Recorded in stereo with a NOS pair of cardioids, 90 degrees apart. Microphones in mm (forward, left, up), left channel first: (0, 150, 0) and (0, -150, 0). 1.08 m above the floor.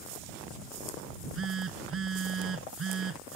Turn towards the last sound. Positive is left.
turn(degrees=-45)